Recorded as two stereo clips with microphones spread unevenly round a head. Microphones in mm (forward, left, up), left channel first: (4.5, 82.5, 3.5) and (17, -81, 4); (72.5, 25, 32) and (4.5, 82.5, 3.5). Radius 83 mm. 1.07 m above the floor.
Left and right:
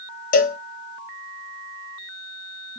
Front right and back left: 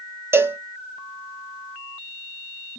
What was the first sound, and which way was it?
A cowbell, 65° left.